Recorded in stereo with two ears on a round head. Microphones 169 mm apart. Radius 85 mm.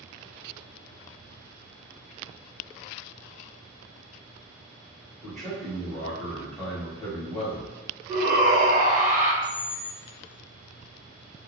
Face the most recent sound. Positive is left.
turn(degrees=35)  # may be behind; listen again after turning